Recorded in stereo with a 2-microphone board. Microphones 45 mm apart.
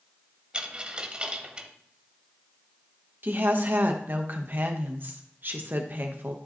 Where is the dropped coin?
25° right (ahead or behind), 1.1 m.